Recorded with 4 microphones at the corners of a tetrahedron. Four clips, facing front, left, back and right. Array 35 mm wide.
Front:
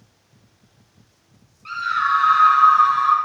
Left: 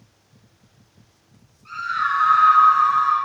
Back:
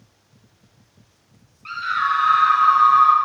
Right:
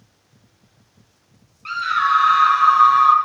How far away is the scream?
About 10 m.